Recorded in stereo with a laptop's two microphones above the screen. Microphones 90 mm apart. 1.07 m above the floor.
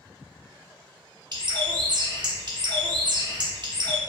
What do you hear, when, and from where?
1.3 s a bird: 50° right (ahead or behind), 0.5 m